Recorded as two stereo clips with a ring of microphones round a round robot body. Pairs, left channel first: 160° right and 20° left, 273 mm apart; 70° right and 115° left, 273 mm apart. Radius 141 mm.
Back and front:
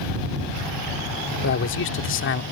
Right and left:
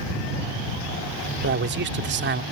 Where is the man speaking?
160° left.